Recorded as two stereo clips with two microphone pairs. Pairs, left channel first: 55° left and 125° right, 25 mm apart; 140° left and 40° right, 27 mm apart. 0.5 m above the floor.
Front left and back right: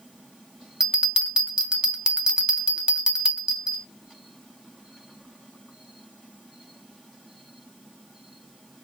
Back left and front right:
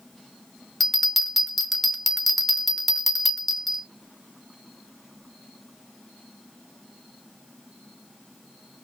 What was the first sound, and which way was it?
A bell, 135° right.